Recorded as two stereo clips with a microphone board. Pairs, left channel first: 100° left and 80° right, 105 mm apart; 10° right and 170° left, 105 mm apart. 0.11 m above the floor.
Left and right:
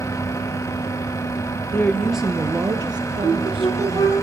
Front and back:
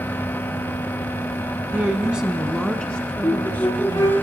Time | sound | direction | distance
1.7 | a woman speaking | 120° left | 1.1 m
3.2 | a flute | 50° left | 8.5 m